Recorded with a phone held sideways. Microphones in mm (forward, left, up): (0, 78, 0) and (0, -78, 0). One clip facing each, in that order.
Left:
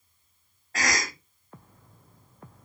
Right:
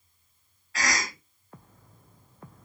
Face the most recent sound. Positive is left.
turn(degrees=45)  # may be behind; listen again after turning